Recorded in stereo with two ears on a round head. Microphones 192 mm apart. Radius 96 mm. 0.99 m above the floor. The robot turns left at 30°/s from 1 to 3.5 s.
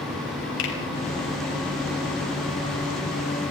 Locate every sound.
0.6 s a finger snap: 65° left (ahead or behind), 5.5 m